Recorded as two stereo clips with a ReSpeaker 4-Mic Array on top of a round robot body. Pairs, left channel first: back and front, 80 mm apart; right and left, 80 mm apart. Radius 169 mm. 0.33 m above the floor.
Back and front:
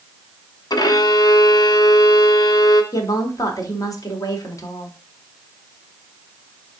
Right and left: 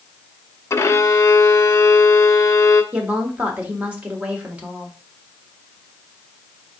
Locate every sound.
0.7 s a violin: 145° right, 0.6 m
2.9 s a woman speaking: 160° left, 1.5 m